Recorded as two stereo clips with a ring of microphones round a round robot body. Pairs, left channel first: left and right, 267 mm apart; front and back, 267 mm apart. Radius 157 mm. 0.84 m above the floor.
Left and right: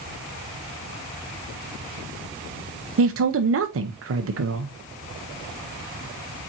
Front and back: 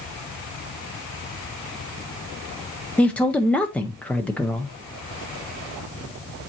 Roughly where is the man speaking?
Right.